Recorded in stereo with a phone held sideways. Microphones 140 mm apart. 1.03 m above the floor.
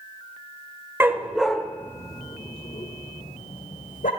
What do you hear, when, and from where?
1.0 s a dog barking: 15° right (ahead or behind), 1.3 m; by 4.1 s 70° left (ahead or behind), 2 m